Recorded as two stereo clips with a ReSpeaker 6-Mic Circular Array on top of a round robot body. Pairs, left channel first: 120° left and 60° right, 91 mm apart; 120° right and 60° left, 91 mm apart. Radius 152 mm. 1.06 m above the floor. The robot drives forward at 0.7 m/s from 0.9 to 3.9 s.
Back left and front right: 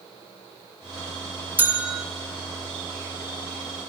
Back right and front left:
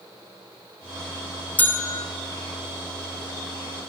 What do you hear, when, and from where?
1.6 s a bell: 85° right, 0.7 m; by 2.0 s 140° right, 0.8 m